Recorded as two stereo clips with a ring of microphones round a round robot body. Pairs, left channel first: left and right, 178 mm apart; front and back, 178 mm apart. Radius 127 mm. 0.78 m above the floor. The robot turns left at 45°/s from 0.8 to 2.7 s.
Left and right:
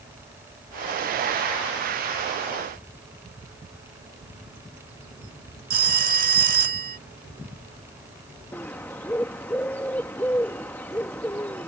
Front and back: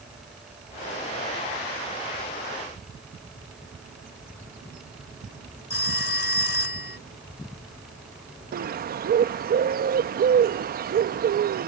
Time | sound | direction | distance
5.7 | a phone ringing | 55° right | ?
8.5 | a bird | 170° left | ?